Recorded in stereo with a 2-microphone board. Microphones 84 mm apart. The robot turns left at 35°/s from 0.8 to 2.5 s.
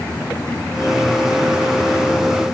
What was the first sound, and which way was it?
Only background noise.